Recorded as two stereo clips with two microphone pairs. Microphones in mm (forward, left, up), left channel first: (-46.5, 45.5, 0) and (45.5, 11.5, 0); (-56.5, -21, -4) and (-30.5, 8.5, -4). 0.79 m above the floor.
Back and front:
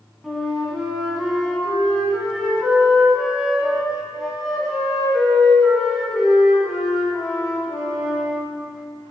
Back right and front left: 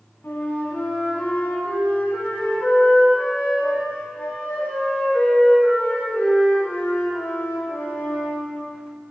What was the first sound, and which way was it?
A flute, 110° right.